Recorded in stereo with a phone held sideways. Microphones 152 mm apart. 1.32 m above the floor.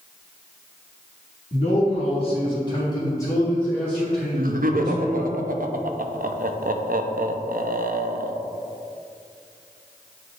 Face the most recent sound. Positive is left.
turn(degrees=-65)  # may be behind; listen again after turning